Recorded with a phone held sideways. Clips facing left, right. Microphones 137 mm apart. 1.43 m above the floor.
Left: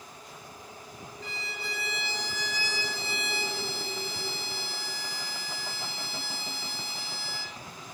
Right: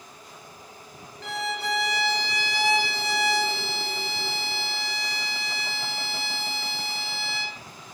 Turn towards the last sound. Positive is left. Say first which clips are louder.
# right 12 dB
turn(degrees=-75)  # may be behind; listen again after turning